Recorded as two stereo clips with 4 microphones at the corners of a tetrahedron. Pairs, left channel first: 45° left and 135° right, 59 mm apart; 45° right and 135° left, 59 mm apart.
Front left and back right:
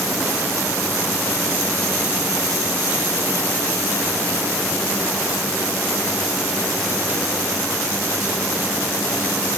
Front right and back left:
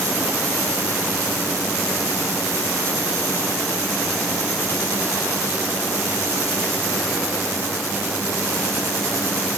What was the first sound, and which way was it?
Only background noise.